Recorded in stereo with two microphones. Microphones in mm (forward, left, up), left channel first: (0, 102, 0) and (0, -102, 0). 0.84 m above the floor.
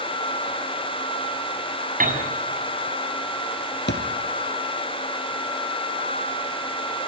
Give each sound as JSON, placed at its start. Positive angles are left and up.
{"t": 2.0, "sound": "a piano", "side_deg": -40, "distance_m": 7.0}
{"t": 3.9, "sound": "a thud", "side_deg": 60, "distance_m": 4.0}